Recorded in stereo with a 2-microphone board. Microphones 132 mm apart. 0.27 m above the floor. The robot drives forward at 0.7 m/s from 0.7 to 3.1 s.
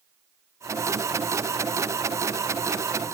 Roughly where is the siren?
No siren in this recording.